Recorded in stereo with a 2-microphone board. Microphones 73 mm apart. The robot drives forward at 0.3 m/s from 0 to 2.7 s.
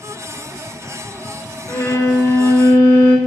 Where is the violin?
40° left (ahead or behind), 0.7 m; by 3.2 s 30° left (ahead or behind), 0.9 m.